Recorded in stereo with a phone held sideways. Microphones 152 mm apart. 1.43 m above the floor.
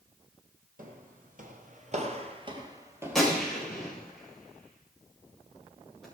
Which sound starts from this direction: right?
Footsteps, at 0.8 s.